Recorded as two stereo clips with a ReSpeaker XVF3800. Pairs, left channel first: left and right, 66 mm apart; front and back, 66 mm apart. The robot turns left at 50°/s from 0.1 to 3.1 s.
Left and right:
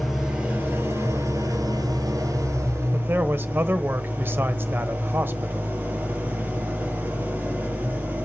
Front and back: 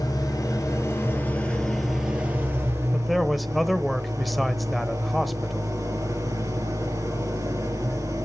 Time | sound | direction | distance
0.0 | an engine running | 5° right | 4 m
2.9 | a man speaking | 80° right | 1.1 m